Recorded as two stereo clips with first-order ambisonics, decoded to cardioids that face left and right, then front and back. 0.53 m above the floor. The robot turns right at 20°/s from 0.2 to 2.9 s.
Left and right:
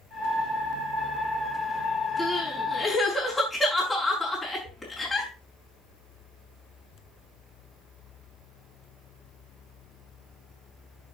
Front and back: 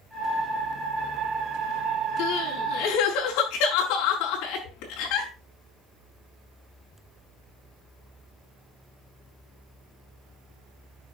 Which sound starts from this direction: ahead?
Crying, at 2.2 s.